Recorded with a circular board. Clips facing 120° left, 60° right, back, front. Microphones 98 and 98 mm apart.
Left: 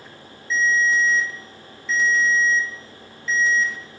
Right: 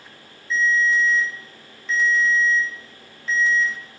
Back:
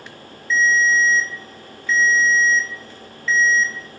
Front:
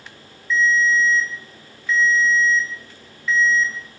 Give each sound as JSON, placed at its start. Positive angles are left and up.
{"t": 0.5, "sound": "a ringtone", "azimuth_deg": -70, "distance_m": 0.7}